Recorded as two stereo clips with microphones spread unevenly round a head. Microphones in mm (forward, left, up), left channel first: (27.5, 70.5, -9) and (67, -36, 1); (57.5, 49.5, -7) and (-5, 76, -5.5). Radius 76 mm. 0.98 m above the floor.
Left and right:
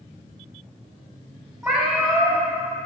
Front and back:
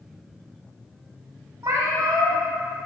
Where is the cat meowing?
150° right, 0.8 m.